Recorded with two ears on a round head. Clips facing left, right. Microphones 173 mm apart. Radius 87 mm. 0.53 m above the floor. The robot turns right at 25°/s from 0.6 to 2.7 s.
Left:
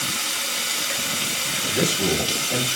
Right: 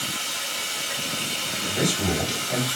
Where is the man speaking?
15° left (ahead or behind), 2.5 m; by 2.7 s 10° right (ahead or behind), 2.5 m.